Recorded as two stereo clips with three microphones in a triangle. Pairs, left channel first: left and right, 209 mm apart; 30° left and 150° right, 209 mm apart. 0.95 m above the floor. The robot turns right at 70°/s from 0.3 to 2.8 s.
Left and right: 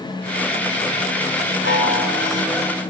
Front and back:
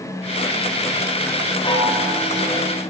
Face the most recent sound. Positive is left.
turn(degrees=170)